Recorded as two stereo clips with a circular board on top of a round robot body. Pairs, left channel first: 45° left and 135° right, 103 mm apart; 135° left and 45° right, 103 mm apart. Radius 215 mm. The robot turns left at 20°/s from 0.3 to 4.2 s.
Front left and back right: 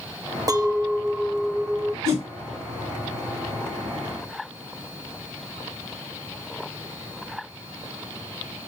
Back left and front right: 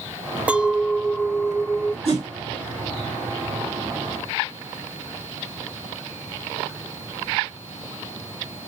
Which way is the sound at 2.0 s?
75° right.